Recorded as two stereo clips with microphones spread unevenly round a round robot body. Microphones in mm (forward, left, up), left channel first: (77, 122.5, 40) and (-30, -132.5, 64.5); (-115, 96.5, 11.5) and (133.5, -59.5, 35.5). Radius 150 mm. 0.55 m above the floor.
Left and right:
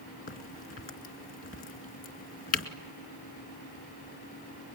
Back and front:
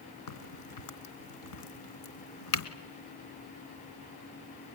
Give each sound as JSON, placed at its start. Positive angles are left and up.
{"t": 0.3, "sound": "a crack", "azimuth_deg": 130, "distance_m": 2.0}